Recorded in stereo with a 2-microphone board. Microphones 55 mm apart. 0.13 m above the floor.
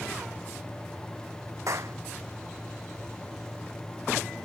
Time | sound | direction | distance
1.7 | a clap | 65° right (ahead or behind) | ?